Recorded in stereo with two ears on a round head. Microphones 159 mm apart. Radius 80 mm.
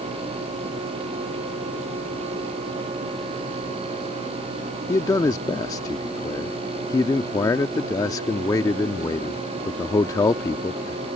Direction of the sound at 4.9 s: 20° left (ahead or behind).